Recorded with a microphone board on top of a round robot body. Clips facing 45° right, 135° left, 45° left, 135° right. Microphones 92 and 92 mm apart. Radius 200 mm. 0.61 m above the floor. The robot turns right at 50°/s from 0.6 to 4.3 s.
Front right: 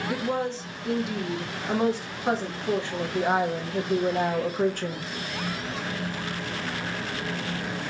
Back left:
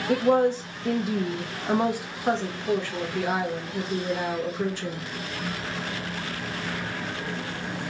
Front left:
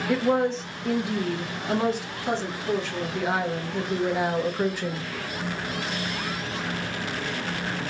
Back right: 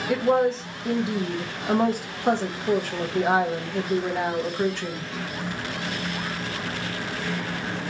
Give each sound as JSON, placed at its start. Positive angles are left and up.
{"t": 0.1, "sound": "a woman speaking", "azimuth_deg": 140, "distance_m": 1.3}